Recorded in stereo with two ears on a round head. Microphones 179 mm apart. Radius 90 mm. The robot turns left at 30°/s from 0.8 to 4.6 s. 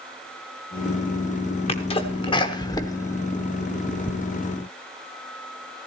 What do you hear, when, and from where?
1.7 s a sneeze: 30° left (ahead or behind), 0.8 m; by 4.1 s centre (ahead or behind), 0.8 m